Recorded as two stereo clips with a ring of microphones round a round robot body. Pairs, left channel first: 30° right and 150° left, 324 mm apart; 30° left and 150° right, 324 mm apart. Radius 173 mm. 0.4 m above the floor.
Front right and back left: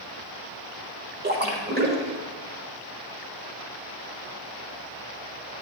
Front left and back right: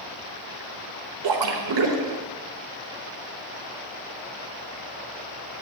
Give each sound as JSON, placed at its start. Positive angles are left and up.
{"t": 1.2, "sound": "a splash", "azimuth_deg": -150, "distance_m": 1.1}